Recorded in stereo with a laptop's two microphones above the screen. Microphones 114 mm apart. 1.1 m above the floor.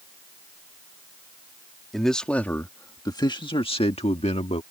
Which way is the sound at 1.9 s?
Centre (ahead or behind).